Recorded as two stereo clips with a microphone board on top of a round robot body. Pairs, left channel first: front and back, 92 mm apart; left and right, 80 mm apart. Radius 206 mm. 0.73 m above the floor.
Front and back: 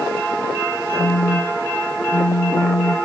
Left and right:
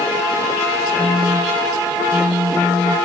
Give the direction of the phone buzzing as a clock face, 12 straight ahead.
1 o'clock.